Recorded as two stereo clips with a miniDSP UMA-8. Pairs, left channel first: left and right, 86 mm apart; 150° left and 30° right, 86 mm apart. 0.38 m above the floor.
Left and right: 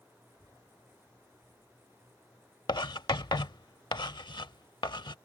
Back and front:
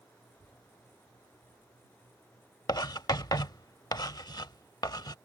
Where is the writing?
115° left.